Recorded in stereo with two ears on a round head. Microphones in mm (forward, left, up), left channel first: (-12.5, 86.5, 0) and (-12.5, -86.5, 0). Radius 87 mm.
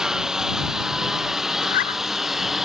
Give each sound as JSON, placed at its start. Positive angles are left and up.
{"t": 0.0, "sound": "a lawn mower", "side_deg": -5}
{"t": 1.6, "sound": "a zipper", "side_deg": 45}